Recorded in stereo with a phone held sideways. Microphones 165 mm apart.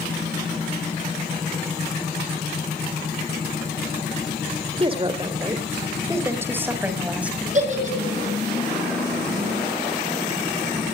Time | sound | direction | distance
4.8 | a woman speaking | 30° right (ahead or behind) | 2.5 m
7.5 | a giggle | 45° right (ahead or behind) | 5.5 m